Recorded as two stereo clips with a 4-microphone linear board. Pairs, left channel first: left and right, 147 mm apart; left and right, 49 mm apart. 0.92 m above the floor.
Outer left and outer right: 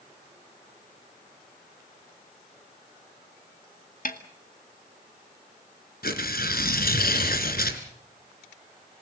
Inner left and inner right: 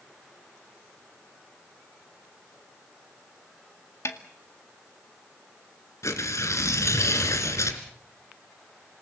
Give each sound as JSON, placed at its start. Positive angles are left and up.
{"t": 4.0, "sound": "a snare drum", "side_deg": 60, "distance_m": 2.0}
{"t": 6.0, "sound": "tearing paper", "side_deg": 75, "distance_m": 2.5}